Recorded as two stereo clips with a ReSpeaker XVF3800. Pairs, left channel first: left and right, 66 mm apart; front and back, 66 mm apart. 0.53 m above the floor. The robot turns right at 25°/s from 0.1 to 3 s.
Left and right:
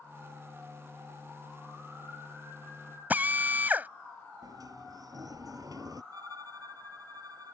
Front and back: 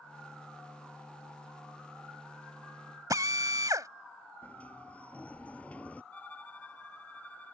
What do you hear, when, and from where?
3.1 s a drill: 150° right
4.4 s a sliding door: 70° right
6.1 s a violin: 70° right